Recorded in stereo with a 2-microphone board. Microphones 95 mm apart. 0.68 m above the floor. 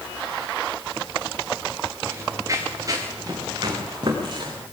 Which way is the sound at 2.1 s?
30° right (ahead or behind).